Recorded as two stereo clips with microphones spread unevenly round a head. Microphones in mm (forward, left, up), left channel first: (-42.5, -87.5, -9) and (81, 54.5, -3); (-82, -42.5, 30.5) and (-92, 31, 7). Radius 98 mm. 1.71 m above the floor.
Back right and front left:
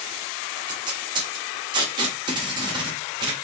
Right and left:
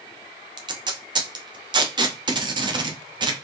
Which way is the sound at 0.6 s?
120° left.